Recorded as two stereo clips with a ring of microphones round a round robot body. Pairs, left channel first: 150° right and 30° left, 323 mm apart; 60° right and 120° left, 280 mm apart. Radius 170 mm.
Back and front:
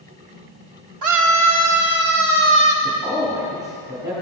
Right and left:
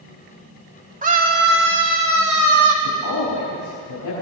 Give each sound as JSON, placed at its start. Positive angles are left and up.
{"t": 1.0, "sound": "a scream", "azimuth_deg": 60, "distance_m": 2.5}
{"t": 2.8, "sound": "a man speaking", "azimuth_deg": -50, "distance_m": 6.0}